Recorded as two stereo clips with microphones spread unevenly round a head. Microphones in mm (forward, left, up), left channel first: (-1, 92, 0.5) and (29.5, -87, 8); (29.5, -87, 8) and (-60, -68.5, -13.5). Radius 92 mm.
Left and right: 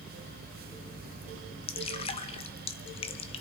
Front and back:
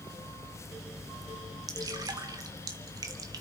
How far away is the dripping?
About 0.8 m.